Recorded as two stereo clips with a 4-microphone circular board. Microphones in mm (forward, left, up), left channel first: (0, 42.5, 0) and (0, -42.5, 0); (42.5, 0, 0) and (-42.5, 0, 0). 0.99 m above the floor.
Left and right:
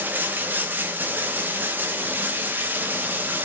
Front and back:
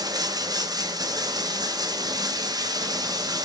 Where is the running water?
155° right, 0.8 m.